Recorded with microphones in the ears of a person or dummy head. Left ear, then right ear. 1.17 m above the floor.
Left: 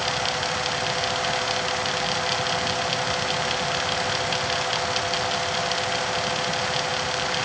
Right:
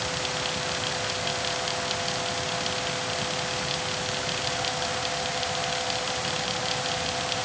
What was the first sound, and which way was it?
Only background noise.